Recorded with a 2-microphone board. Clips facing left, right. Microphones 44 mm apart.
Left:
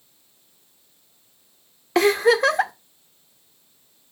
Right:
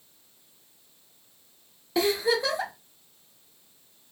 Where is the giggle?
65° left (ahead or behind), 0.6 m.